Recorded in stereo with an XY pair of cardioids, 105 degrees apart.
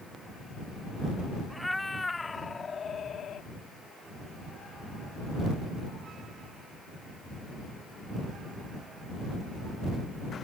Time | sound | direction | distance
1.5 | a cat meowing | straight ahead | ?